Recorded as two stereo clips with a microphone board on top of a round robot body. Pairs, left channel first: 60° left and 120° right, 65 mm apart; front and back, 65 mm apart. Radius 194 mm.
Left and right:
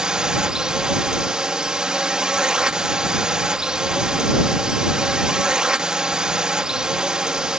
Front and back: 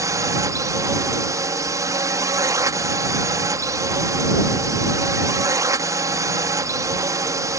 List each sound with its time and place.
0.0 s a drone: 165° left